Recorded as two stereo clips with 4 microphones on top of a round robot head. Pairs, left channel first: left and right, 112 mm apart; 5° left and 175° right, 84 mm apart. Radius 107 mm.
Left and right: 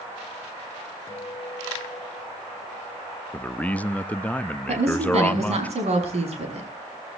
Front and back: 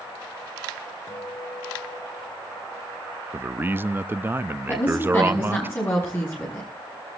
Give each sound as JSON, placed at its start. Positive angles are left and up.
{"t": 1.1, "sound": "a guitar", "azimuth_deg": 35, "distance_m": 3.0}
{"t": 3.3, "sound": "a man speaking", "azimuth_deg": 150, "distance_m": 0.7}
{"t": 4.7, "sound": "a woman speaking", "azimuth_deg": -65, "distance_m": 6.5}